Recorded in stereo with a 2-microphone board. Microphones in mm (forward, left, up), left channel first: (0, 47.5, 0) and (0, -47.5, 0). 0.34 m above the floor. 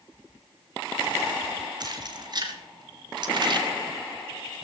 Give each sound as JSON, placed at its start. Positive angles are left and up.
{"t": 1.8, "sound": "keys jangling", "side_deg": -50, "distance_m": 2.5}